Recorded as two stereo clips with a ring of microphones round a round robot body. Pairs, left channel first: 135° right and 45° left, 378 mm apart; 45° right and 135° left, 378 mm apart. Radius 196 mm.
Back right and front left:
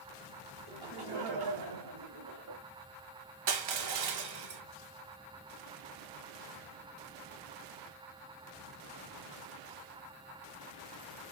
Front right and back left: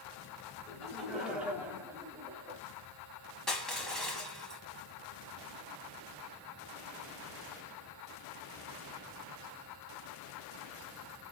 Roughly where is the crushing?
Ahead left.